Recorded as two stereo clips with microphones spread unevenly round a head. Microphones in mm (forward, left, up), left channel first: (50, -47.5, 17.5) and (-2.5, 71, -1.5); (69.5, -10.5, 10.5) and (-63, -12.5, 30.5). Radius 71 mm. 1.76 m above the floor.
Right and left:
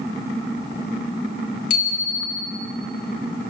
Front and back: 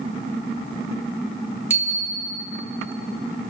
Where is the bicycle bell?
105° right, 4 m.